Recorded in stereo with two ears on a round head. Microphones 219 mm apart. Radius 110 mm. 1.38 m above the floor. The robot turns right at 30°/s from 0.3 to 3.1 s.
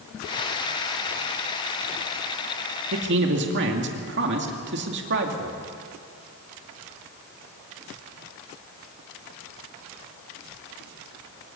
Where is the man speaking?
55° right (ahead or behind), 2 m; by 5.6 s 50° right (ahead or behind), 2 m.